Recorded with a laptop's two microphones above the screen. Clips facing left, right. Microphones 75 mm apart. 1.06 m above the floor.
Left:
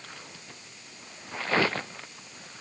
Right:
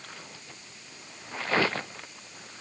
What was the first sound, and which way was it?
Only background noise.